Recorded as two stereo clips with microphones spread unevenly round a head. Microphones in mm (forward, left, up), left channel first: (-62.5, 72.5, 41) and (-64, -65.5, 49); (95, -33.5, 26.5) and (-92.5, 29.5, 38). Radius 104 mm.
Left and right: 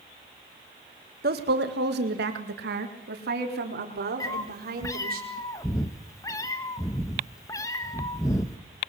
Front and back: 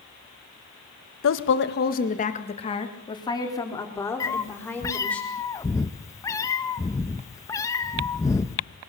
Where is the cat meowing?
40° left, 0.9 m.